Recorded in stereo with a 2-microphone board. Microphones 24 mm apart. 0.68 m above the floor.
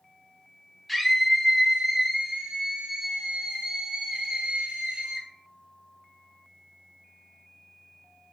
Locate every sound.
0.9 s a scream: 5° left (ahead or behind), 1.9 m; by 5.3 s 65° right (ahead or behind), 2 m